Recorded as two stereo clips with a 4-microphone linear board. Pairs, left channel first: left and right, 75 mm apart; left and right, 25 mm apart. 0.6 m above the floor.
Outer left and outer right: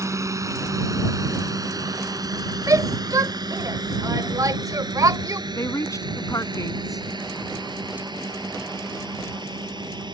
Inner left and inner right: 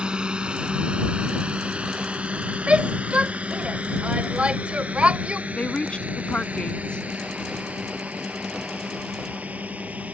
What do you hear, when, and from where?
0.0 s a drone: 40° right (ahead or behind); by 10.1 s 85° right
2.7 s a shout: 55° right (ahead or behind)
5.5 s a woman speaking: 45° left (ahead or behind)